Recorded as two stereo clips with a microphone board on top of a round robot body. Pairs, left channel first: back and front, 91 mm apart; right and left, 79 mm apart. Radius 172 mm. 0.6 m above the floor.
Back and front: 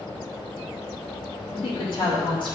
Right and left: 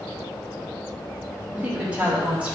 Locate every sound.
1.5 s a woman speaking: 165° left, 3 m